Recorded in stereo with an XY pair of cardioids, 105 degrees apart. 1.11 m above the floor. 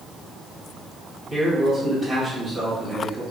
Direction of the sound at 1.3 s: 25° right.